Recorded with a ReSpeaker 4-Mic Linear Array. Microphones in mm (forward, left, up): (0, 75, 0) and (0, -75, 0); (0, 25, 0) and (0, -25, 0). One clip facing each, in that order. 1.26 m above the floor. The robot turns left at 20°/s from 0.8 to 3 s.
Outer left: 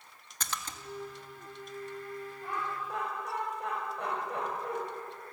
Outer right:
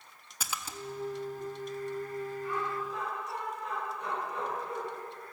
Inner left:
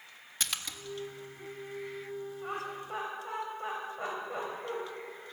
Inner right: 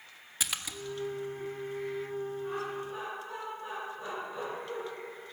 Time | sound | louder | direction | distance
0.4 | a splash | even, inner right 1 dB | 10° right (ahead or behind) | 1.4 m
2.4 | laughter | even, inner right 2 dB | 55° left (ahead or behind) | 6 m